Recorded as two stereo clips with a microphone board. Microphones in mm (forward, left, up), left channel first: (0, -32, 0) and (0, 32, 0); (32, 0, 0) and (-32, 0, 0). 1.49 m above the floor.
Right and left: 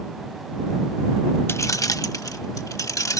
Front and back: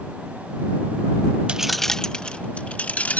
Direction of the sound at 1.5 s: 115° right.